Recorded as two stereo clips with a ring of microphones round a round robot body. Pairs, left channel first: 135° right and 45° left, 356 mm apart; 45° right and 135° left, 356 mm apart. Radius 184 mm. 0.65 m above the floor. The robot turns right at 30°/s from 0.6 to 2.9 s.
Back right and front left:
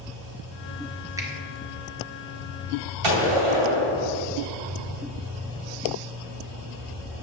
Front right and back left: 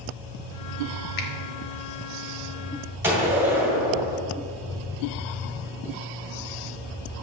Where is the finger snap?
35° right, 1.1 m; by 1.3 s 30° right, 1.1 m.